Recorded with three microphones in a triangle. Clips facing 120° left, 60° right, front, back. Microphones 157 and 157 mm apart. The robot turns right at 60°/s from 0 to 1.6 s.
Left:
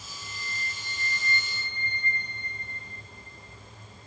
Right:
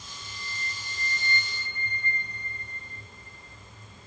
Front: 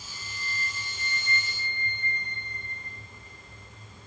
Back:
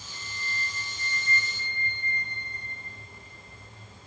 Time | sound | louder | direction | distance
0.1 | a flute | left 2 dB, back 1 dB | 65° right | 2.5 m